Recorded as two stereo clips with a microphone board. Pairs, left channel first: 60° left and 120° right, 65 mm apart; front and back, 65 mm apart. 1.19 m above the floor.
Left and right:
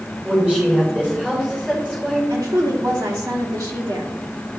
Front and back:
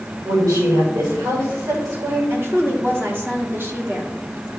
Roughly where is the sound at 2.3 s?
Behind right.